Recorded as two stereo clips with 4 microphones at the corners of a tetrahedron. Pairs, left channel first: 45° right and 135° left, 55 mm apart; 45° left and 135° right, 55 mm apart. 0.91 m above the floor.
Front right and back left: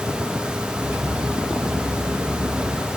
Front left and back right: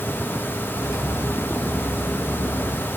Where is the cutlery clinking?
70° left, 4.5 m.